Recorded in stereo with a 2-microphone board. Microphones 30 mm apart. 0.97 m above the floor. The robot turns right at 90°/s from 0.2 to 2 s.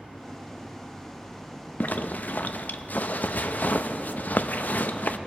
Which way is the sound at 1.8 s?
75° left (ahead or behind).